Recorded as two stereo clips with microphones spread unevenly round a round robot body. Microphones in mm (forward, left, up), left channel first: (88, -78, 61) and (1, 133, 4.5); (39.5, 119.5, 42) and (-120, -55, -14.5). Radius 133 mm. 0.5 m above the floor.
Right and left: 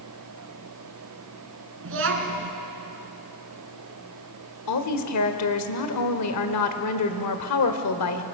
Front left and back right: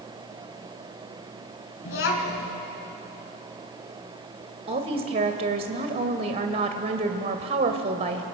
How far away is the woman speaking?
About 1.8 m.